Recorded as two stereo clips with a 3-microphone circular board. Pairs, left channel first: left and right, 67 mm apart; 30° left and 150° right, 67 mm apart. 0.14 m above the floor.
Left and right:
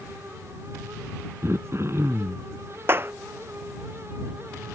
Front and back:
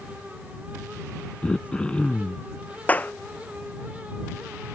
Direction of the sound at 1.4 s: 45° right.